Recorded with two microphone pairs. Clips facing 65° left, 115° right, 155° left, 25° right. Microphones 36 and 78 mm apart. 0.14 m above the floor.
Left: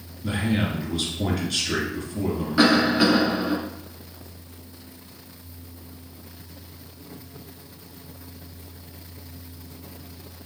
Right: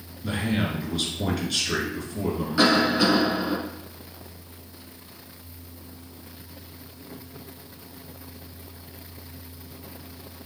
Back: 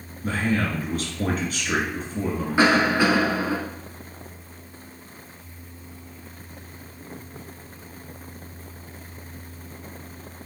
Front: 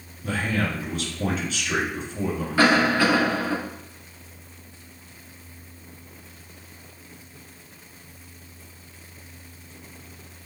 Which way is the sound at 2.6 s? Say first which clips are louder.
Left 2 dB, even; 125° left.